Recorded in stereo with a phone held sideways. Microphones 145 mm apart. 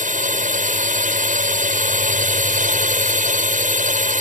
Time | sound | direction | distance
0.0 | a drone | 65° right (ahead or behind) | ?